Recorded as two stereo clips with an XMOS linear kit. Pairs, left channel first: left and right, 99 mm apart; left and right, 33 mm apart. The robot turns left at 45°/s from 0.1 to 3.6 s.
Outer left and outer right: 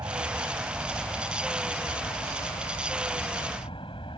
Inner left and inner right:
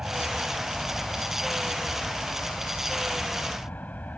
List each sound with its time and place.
0.0 s an aircraft: 140° right; by 4.2 s 65° left